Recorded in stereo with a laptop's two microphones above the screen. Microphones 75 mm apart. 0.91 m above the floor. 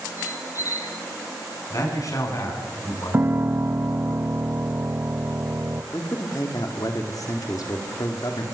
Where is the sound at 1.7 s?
50° left (ahead or behind), 9 m.